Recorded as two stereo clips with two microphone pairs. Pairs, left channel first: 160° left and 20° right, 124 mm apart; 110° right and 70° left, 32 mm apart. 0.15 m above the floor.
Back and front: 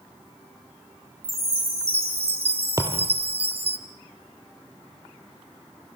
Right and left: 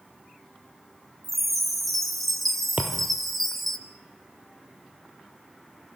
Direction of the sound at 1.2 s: 25° right.